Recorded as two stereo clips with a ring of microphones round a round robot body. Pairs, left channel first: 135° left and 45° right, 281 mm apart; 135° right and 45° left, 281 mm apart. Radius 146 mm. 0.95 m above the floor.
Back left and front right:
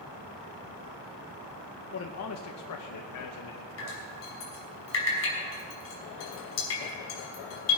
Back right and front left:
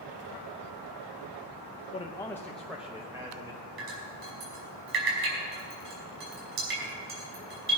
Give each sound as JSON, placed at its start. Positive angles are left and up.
{"t": 1.9, "sound": "a man speaking", "azimuth_deg": 160, "distance_m": 0.8}
{"t": 3.8, "sound": "dripping", "azimuth_deg": 90, "distance_m": 5.5}